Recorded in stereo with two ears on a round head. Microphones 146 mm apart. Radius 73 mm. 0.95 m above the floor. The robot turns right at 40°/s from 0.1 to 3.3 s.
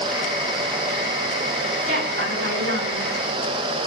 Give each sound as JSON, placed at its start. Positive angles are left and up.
{"t": 1.9, "sound": "a woman speaking", "azimuth_deg": -140, "distance_m": 8.5}